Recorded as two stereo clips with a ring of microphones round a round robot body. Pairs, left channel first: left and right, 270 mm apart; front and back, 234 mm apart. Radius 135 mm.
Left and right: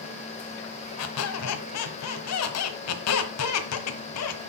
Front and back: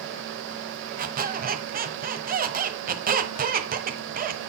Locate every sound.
1.0 s a squeak: 125° left, 1.2 m